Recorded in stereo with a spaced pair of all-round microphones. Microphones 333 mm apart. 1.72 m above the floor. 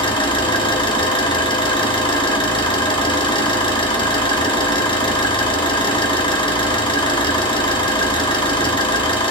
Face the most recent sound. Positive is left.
turn(degrees=15)  # may be behind; listen again after turning